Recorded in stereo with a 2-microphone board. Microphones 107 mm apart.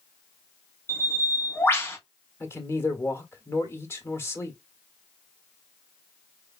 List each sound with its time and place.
0.9 s a bird: 20° left (ahead or behind), 1.2 m
2.4 s a man speaking: 25° left (ahead or behind), 1.4 m